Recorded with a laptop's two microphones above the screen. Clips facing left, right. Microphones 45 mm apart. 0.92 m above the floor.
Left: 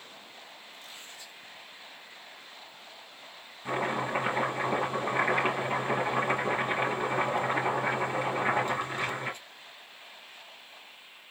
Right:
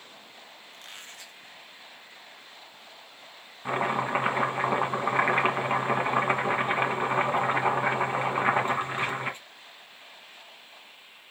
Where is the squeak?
60° right (ahead or behind), 0.7 m.